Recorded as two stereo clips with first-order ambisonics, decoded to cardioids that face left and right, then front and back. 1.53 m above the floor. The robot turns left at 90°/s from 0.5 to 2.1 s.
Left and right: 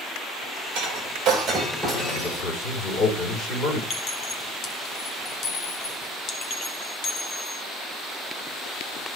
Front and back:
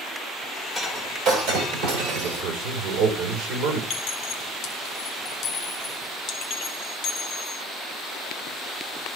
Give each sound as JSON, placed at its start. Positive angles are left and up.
{"t": 0.8, "sound": "breaking glass", "azimuth_deg": -90, "distance_m": 3.0}
{"t": 2.2, "sound": "a man speaking", "azimuth_deg": 140, "distance_m": 3.5}
{"t": 3.9, "sound": "a clink", "azimuth_deg": 45, "distance_m": 1.3}